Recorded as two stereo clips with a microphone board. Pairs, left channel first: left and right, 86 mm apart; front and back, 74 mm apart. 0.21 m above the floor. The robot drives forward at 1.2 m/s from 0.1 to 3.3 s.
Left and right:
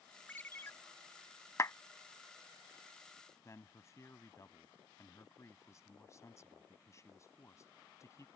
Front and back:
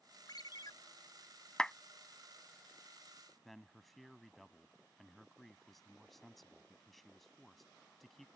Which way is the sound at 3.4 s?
85° left.